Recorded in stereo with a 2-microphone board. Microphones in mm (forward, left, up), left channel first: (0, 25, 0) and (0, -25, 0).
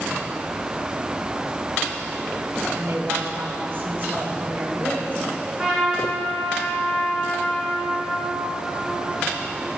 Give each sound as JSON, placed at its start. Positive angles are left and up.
{"t": 2.8, "sound": "a woman speaking", "side_deg": -60, "distance_m": 2.5}
{"t": 5.6, "sound": "a trumpet", "side_deg": -25, "distance_m": 5.5}